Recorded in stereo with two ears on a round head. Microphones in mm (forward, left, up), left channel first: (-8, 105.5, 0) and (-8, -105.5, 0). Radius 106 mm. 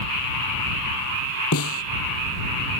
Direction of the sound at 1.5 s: 70° left (ahead or behind).